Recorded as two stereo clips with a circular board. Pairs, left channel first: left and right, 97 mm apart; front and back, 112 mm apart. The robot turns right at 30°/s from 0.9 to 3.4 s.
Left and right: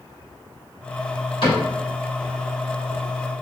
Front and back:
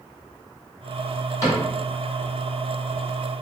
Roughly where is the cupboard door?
Ahead left.